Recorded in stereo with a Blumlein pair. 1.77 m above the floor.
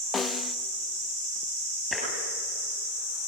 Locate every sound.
0.1 s a snare drum: 15° left, 0.9 m
1.9 s tapping: 10° left, 9.5 m